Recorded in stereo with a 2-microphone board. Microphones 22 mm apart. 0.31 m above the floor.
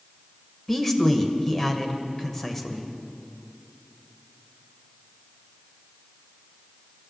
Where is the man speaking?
15° left (ahead or behind), 1.0 m.